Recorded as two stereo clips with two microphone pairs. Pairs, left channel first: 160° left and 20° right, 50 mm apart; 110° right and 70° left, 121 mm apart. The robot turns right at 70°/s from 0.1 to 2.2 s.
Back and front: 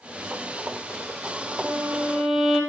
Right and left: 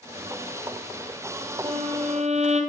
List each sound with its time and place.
1.6 s a violin: 30° left, 3 m; by 2.6 s 70° left, 3 m